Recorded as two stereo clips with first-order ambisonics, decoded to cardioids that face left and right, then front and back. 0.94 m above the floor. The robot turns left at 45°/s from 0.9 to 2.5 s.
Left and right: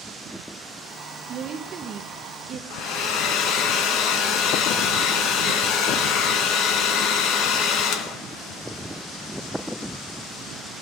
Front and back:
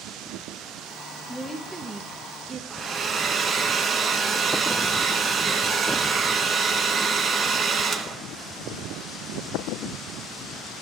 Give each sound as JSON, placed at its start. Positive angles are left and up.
{"t": 1.3, "sound": "a woman speaking", "azimuth_deg": -85, "distance_m": 0.8}
{"t": 2.7, "sound": "a hair dryer", "azimuth_deg": 110, "distance_m": 1.4}